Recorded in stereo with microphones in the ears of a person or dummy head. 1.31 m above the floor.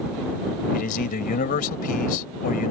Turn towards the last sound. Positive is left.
turn(degrees=50)  # may be behind; listen again after turning